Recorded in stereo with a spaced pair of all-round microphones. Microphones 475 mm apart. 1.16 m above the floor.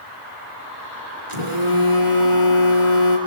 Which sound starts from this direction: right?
A phone buzzing, at 1.3 s.